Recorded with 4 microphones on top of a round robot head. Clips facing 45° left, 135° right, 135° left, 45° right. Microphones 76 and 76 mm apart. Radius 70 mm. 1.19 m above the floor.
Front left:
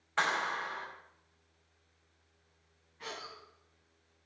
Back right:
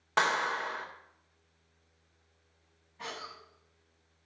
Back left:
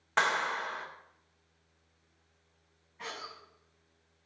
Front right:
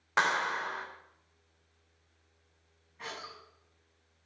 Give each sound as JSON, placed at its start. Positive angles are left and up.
{"t": 0.2, "sound": "a clap", "azimuth_deg": -125, "distance_m": 3.0}
{"t": 3.0, "sound": "a cough", "azimuth_deg": -135, "distance_m": 9.5}